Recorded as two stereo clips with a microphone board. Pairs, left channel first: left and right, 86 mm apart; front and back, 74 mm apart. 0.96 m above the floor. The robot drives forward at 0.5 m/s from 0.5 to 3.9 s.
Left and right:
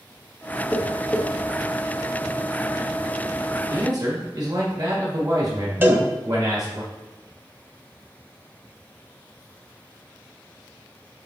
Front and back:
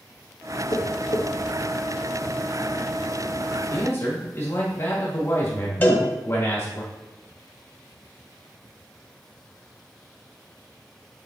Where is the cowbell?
45° right, 0.8 m.